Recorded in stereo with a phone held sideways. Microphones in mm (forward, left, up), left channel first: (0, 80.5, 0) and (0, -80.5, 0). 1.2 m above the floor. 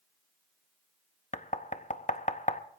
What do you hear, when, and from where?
1.3 s knocking: 50° left (ahead or behind), 0.7 m